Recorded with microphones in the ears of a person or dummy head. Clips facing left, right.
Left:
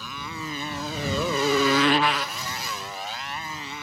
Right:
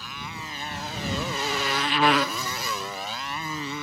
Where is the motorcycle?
85° left; by 3.8 s 85° right.